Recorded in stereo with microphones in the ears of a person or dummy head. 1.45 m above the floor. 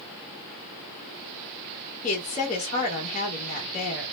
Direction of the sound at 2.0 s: 35° left (ahead or behind).